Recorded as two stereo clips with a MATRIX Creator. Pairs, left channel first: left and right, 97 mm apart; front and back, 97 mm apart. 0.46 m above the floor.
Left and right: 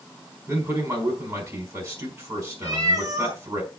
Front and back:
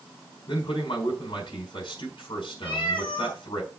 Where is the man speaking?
35° right, 4.5 m.